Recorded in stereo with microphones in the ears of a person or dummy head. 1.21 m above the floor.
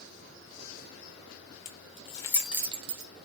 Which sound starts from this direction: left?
Keys jangling, at 1.6 s.